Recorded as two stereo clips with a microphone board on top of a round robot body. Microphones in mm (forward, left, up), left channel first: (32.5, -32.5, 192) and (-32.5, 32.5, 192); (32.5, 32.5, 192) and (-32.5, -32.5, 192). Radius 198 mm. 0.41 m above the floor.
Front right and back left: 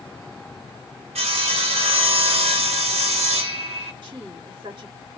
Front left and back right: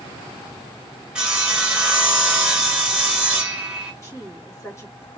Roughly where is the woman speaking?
Left.